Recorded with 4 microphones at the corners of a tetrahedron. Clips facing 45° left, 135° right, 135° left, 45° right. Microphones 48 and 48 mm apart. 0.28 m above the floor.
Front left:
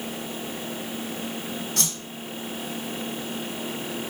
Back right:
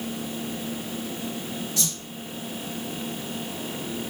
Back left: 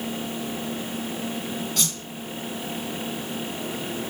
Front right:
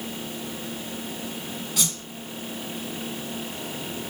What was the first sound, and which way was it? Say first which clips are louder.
A whoosh: front left 1 dB, back left 1 dB; 40° left.